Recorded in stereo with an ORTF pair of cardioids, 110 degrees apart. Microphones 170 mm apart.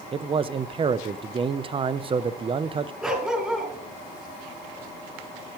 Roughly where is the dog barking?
Ahead.